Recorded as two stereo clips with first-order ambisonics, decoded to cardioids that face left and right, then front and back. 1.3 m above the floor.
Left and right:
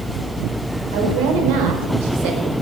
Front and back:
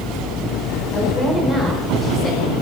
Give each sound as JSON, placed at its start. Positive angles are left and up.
{"t": 0.9, "sound": "a woman speaking", "azimuth_deg": -85, "distance_m": 4.5}